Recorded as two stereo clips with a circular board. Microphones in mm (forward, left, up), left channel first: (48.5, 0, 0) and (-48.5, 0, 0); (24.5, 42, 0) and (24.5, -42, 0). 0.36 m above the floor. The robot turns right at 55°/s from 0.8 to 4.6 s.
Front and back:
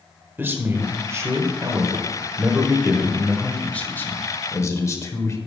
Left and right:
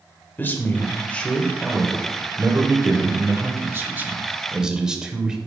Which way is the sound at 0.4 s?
135° left.